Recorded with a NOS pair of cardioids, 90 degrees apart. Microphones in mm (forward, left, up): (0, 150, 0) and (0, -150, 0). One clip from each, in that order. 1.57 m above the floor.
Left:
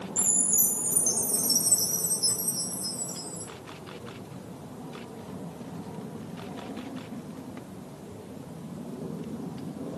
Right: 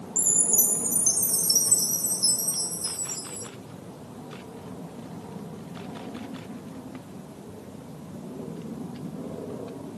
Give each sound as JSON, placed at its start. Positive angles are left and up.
{"t": 0.2, "sound": "a chime", "azimuth_deg": -25, "distance_m": 1.9}